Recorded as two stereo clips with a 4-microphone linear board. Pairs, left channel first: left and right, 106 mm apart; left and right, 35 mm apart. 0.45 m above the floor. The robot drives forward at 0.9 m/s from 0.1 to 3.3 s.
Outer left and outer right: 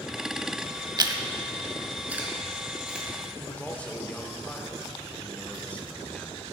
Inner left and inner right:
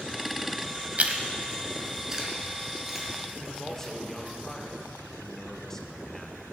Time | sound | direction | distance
1.0 | chewing | 45° right (ahead or behind) | 0.6 m
3.4 | a man speaking | 15° left (ahead or behind) | 0.8 m